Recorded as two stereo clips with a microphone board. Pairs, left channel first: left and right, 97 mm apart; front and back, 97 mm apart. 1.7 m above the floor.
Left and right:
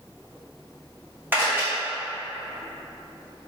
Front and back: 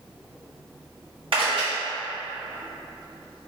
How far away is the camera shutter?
About 1.5 m.